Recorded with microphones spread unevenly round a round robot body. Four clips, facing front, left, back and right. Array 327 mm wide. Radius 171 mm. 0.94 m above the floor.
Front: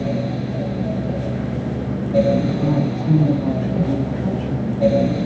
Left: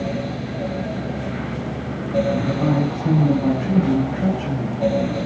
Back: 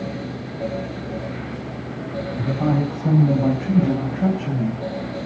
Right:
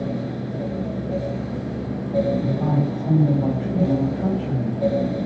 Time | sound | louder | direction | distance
2.4 | a woman speaking | left 2 dB, front 2 dB | 150° left | 4 m